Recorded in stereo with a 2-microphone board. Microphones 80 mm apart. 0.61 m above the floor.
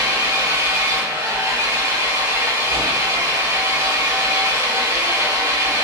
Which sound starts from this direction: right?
An engine running, at 0.0 s.